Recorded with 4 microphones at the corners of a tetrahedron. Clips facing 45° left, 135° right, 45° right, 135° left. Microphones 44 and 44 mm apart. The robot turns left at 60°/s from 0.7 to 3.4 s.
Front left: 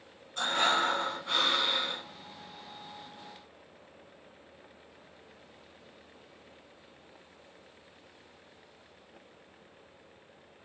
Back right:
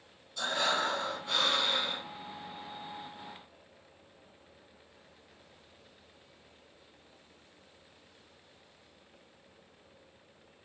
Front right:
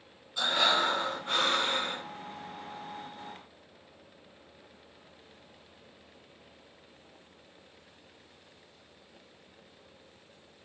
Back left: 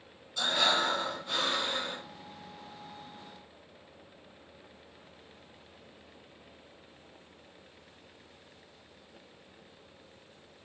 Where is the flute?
I don't hear a flute.